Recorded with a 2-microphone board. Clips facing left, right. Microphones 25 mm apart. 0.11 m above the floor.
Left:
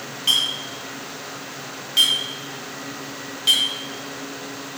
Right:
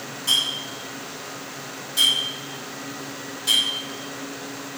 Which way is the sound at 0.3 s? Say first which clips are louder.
Left 2 dB; 55° left (ahead or behind).